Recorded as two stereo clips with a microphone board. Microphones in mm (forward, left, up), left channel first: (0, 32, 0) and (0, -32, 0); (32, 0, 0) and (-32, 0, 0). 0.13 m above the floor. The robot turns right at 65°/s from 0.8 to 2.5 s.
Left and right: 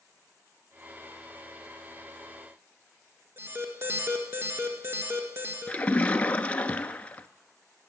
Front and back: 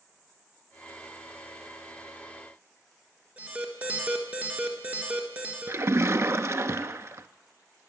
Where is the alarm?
120° right, 1.7 m.